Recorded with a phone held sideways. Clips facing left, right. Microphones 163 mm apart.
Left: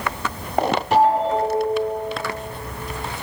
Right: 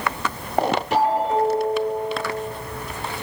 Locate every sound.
0.9 s a ringtone: 70° left (ahead or behind), 3.5 m